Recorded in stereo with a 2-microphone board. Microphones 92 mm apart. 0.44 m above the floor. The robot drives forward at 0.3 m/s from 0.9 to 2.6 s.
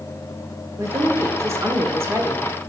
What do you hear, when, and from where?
0.8 s a woman speaking: 30° right (ahead or behind), 1.0 m; by 2.5 s 25° right (ahead or behind), 1.0 m